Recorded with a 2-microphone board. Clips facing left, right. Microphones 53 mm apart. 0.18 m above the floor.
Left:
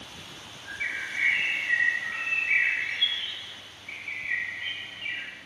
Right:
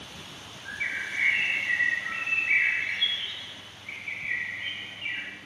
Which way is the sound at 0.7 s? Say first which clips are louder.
Right 1 dB; 10° right (ahead or behind).